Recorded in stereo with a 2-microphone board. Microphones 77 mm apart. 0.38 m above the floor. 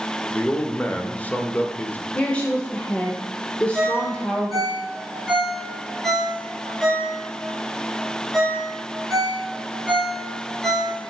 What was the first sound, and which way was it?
A man speaking, 20° left (ahead or behind).